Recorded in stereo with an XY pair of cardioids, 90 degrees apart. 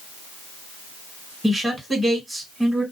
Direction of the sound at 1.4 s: 10° right.